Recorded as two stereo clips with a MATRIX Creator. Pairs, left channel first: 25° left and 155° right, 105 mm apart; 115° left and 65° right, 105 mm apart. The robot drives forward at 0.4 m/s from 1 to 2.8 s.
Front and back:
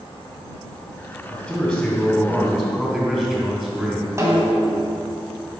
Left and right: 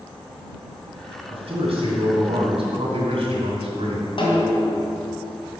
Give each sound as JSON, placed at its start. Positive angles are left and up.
{"t": 1.3, "sound": "a man speaking", "azimuth_deg": -65, "distance_m": 2.0}
{"t": 4.2, "sound": "a snare drum", "azimuth_deg": 140, "distance_m": 2.5}